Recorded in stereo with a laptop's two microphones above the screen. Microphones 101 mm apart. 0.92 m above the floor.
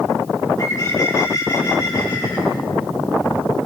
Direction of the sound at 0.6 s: 40° left (ahead or behind).